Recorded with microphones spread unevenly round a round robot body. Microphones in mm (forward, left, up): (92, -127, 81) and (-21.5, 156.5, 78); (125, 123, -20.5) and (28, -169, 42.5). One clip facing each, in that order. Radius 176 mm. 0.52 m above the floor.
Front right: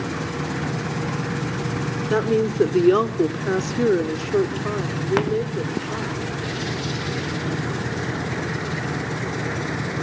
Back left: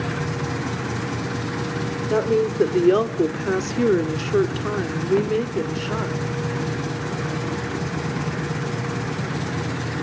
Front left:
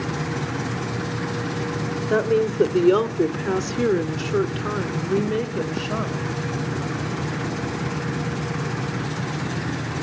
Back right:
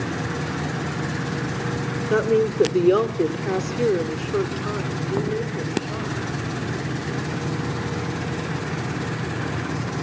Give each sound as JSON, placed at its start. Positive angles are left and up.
{"t": 2.1, "sound": "a woman speaking", "azimuth_deg": -15, "distance_m": 2.0}